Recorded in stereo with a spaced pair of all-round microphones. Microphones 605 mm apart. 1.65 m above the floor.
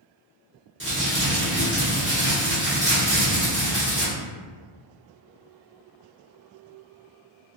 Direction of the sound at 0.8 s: 20° right (ahead or behind).